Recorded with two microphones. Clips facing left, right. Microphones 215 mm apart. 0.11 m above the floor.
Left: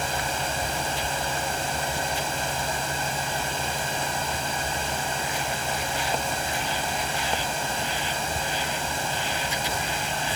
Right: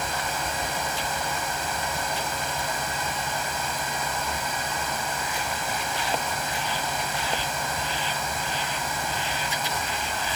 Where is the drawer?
No drawer in this recording.